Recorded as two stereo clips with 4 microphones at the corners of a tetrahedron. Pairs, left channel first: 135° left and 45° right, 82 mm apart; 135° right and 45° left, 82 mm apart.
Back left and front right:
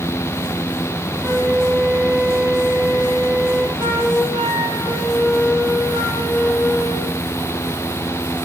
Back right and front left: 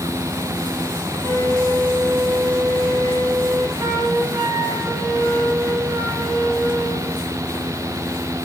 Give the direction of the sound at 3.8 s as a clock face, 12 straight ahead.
11 o'clock.